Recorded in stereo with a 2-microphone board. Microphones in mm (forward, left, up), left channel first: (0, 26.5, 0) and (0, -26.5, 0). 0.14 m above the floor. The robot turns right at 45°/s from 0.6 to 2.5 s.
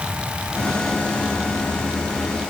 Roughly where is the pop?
I don't hear a pop.